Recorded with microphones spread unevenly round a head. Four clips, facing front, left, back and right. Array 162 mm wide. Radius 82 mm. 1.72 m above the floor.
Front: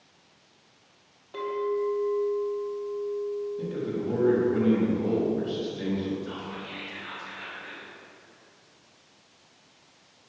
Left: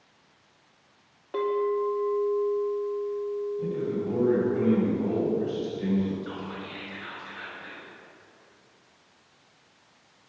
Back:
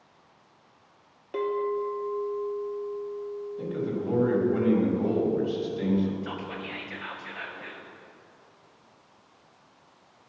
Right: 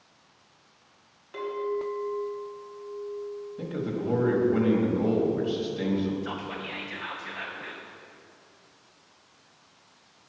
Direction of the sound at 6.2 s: 120° right.